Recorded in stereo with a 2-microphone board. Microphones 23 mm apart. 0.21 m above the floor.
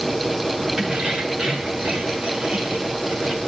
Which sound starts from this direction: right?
Keys jangling, at 0.8 s.